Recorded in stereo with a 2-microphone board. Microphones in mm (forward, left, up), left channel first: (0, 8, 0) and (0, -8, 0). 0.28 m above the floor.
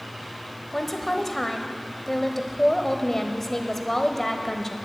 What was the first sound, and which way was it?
A woman speaking, 20° left (ahead or behind).